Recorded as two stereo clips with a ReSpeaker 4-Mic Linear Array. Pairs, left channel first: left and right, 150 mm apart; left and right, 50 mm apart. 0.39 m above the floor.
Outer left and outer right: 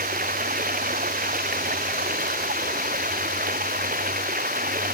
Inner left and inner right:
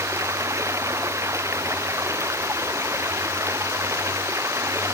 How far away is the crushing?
I don't hear crushing.